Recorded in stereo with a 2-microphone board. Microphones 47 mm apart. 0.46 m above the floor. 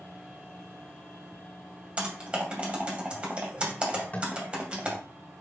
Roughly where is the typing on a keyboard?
Right.